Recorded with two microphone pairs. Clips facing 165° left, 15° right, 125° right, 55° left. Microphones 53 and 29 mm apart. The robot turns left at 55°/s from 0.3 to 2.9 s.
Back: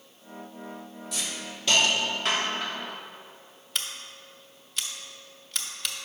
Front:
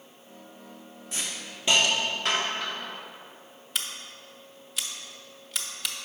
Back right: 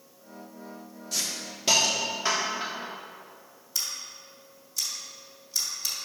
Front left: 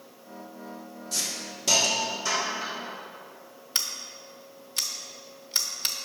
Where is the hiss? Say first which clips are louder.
Even, even; 40° right, 1.2 m; by 2.9 s 140° right, 1.2 m.